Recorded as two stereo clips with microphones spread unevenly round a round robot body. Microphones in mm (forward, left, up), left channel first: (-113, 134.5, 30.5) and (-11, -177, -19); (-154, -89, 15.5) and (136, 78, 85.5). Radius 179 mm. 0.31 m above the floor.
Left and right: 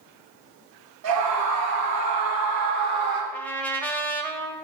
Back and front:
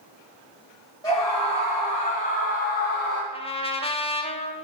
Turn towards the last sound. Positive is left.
turn(degrees=-155)